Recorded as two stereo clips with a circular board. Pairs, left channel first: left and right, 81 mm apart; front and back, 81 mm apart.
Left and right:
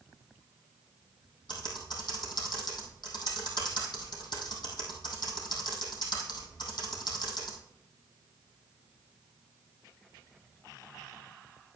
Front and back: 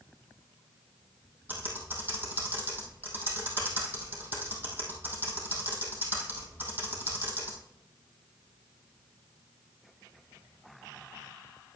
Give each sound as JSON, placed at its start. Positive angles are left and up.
{"t": 1.5, "sound": "typing on a keyboard", "azimuth_deg": 115, "distance_m": 3.0}